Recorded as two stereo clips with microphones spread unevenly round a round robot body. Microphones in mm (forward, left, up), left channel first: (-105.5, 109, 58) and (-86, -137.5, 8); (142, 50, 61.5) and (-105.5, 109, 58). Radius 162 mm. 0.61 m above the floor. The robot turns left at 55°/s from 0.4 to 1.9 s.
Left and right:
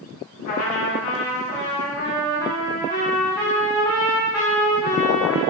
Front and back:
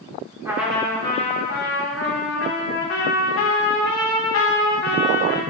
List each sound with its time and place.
0.5 s a trumpet: 90° left, 2.5 m; by 5.4 s 10° left, 2.5 m